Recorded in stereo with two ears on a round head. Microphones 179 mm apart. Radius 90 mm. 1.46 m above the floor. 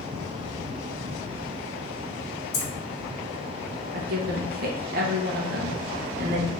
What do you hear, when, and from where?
2.5 s keys jangling: 50° left (ahead or behind), 1.7 m
3.9 s a woman speaking: 50° right (ahead or behind), 0.9 m